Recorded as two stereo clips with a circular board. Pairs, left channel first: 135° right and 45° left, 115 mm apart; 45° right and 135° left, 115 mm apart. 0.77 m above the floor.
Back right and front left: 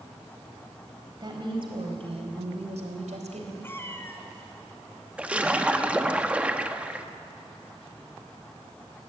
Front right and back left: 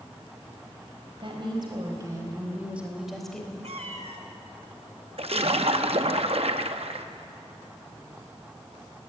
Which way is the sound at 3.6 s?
155° left.